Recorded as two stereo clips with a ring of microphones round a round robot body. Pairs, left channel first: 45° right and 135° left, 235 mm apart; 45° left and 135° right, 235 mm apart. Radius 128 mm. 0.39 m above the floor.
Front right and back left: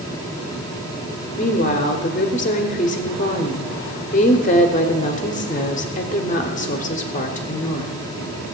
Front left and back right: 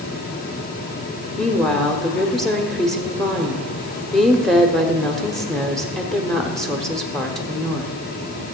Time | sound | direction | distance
1.4 | a woman speaking | 40° right | 1.2 m